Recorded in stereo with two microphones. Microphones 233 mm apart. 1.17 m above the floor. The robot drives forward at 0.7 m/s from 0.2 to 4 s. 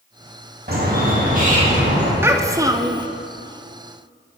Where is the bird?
45° right (ahead or behind), 2 m; by 2.1 s 30° right (ahead or behind), 3 m.